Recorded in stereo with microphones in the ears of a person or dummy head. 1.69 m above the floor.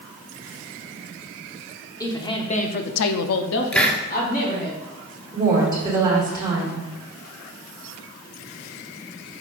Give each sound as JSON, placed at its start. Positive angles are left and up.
{"t": 2.0, "sound": "a woman speaking", "side_deg": 15, "distance_m": 1.1}
{"t": 3.7, "sound": "a hiss", "side_deg": 0, "distance_m": 0.7}
{"t": 5.3, "sound": "a woman speaking", "side_deg": -20, "distance_m": 2.5}